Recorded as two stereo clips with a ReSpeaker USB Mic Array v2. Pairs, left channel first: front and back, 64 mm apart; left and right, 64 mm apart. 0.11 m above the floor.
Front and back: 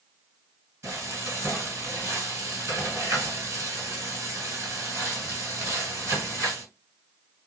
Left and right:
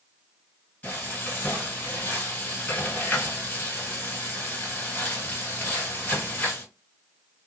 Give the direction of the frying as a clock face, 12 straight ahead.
7 o'clock.